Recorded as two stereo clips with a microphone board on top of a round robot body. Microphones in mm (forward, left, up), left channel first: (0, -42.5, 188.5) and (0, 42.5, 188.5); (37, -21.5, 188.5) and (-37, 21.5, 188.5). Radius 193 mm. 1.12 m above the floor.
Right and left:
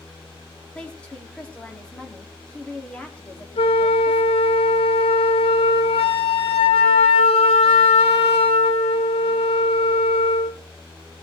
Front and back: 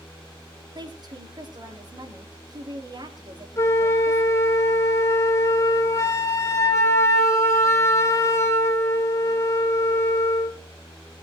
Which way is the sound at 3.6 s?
90° right.